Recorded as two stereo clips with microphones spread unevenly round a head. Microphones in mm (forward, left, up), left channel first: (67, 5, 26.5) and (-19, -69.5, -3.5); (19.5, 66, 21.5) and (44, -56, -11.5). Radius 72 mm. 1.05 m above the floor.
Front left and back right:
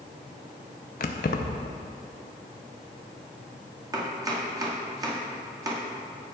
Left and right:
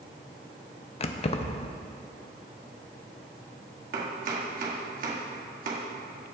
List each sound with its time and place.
1.0 s keys jangling: 60° left, 0.6 m
3.9 s chopping: 80° right, 1.9 m